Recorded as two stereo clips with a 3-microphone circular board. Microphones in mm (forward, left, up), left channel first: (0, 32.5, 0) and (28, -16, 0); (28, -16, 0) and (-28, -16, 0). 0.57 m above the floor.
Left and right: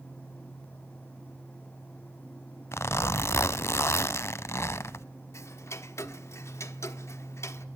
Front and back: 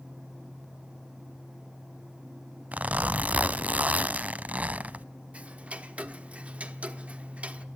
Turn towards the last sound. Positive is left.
turn(degrees=120)